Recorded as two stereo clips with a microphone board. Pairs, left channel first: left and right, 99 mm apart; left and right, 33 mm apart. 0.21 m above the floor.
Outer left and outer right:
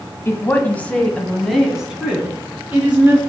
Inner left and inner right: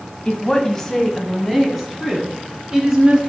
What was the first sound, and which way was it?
A woman speaking, 25° left (ahead or behind).